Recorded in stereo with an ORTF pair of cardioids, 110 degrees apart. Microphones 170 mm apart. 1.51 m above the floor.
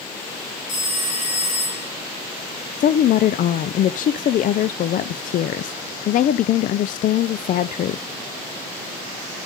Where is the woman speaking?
50° left, 0.5 m.